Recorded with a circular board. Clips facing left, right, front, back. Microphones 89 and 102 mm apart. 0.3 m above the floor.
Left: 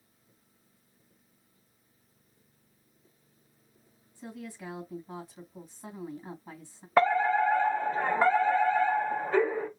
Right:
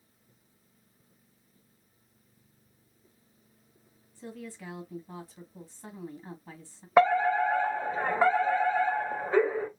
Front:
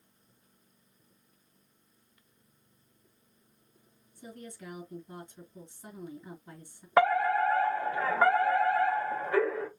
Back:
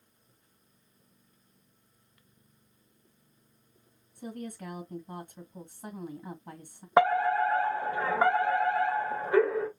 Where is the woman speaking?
170° left, 2 m.